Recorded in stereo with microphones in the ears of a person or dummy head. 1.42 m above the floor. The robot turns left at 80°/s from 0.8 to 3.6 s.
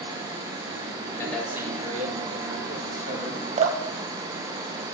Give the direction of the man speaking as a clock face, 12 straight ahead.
11 o'clock.